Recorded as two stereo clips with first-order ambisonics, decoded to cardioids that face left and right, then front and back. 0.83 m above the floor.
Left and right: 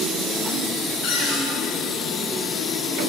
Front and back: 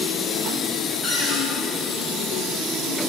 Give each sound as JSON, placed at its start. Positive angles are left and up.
{"t": 1.0, "sound": "a cupboard door", "azimuth_deg": 95, "distance_m": 1.8}